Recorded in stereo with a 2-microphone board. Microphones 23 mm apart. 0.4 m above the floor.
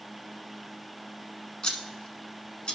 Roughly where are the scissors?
Left.